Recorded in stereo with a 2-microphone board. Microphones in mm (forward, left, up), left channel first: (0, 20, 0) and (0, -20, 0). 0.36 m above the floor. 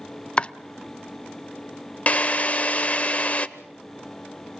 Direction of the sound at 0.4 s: 25° left (ahead or behind).